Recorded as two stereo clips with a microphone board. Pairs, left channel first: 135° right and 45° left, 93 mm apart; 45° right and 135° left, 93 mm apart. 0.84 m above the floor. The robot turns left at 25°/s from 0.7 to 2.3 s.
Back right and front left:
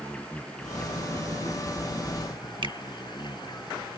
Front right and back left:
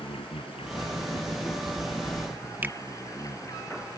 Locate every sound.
0.0 s an insect: 55° right; by 4.0 s 95° right
2.6 s a finger snap: 70° left